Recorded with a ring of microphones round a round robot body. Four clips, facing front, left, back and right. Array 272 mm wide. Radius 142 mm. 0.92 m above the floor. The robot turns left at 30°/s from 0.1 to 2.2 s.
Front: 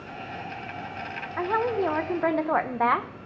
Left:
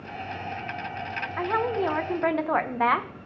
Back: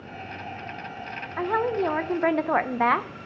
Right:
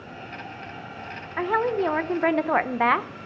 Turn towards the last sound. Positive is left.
turn(degrees=-120)